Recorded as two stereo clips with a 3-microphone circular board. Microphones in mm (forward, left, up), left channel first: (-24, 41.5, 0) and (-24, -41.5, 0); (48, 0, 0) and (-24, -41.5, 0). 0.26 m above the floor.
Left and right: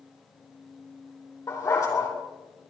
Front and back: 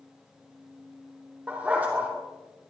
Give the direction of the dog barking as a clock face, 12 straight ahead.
7 o'clock.